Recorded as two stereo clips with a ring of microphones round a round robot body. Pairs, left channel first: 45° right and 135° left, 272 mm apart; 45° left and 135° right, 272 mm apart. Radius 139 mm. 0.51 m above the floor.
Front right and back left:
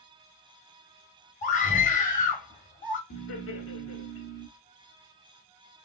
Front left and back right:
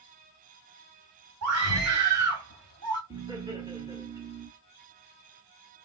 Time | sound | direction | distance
1.4 | a scream | 105° right | 2 m
3.1 | laughter | 65° right | 1.5 m